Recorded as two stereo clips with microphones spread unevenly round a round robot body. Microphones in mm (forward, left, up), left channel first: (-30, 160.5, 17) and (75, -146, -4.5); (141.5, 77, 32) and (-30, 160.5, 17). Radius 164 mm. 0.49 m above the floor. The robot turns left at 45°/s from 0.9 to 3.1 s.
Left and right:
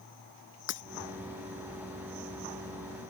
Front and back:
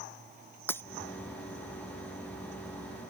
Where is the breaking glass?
55° left.